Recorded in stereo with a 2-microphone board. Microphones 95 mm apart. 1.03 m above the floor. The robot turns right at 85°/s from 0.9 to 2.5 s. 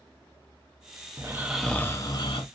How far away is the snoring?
About 0.6 m.